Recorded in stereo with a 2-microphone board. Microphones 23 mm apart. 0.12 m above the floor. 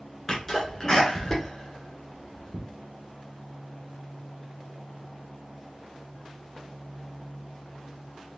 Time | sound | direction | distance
0.3 | a sneeze | 20° left (ahead or behind) | 1.7 m